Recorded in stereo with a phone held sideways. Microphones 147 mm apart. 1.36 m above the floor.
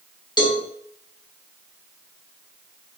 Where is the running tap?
No running tap in this recording.